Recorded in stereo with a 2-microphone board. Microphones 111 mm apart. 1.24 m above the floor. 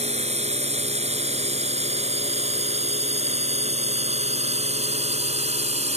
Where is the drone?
80° right.